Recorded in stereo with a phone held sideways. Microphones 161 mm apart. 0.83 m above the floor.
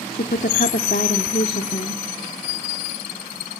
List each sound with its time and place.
0.1 s a woman speaking: 75° left (ahead or behind), 1.5 m